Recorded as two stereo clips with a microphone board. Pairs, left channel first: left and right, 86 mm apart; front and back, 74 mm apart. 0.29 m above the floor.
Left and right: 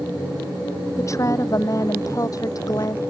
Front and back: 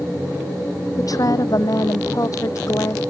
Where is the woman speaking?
35° left; by 3.0 s 45° left.